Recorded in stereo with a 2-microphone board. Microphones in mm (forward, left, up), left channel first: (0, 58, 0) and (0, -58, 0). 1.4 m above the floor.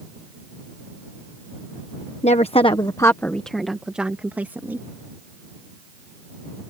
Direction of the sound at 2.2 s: 70° left (ahead or behind).